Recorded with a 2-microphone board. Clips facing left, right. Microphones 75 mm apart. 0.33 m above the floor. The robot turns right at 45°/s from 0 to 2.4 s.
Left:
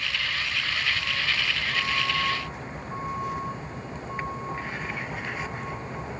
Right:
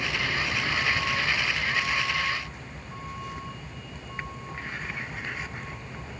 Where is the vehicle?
80° right; by 6.2 s 30° left.